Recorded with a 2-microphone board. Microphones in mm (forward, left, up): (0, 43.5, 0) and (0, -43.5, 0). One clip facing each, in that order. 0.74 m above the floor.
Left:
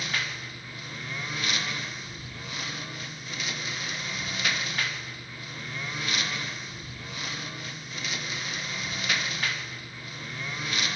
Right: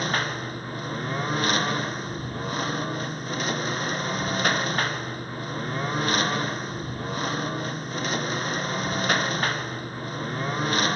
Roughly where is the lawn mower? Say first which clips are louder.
Right 7 dB; right.